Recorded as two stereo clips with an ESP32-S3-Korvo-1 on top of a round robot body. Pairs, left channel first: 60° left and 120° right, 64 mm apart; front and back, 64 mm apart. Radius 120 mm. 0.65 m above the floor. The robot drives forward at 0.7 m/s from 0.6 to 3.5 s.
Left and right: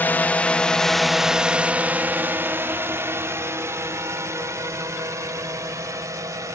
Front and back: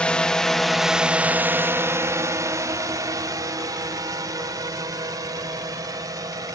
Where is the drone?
55° left; by 6.5 s 155° right.